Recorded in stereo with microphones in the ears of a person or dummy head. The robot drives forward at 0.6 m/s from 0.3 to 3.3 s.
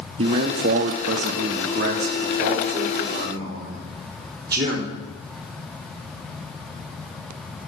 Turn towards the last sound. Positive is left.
turn(degrees=-15)  # may be behind; listen again after turning